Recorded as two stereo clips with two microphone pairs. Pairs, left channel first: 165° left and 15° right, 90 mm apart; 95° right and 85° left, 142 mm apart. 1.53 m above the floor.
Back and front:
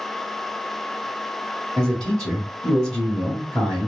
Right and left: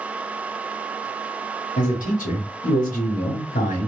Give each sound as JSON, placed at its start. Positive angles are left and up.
{"t": 1.8, "sound": "a man speaking", "azimuth_deg": -110, "distance_m": 0.9}